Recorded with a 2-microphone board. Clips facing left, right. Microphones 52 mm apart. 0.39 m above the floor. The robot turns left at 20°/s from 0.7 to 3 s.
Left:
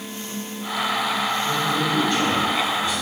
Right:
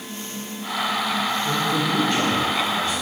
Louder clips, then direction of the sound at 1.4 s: Even; 45° right (ahead or behind).